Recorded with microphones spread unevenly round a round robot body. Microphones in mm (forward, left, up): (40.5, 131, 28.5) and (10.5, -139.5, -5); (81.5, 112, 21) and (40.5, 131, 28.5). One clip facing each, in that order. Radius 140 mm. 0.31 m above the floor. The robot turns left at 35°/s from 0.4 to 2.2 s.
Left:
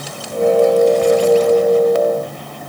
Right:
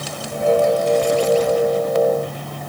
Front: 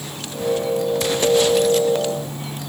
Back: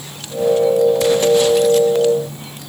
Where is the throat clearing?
No throat clearing in this recording.